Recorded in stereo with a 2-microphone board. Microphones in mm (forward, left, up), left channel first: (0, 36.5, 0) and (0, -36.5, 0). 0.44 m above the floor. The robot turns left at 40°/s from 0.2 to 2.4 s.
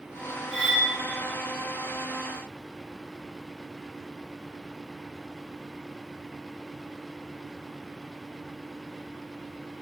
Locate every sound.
0.5 s cutlery clinking: centre (ahead or behind), 0.6 m; by 0.9 s 10° left (ahead or behind), 0.6 m